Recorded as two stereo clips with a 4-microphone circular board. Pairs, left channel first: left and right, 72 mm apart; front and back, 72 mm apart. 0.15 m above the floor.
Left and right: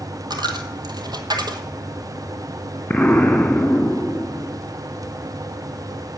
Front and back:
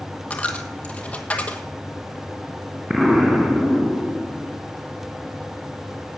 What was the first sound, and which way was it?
A dropped coin, 70° right.